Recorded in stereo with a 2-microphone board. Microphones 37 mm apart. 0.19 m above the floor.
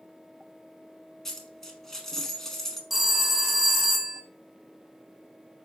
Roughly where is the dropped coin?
Centre.